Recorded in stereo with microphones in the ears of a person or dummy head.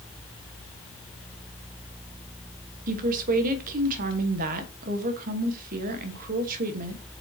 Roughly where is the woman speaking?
Right.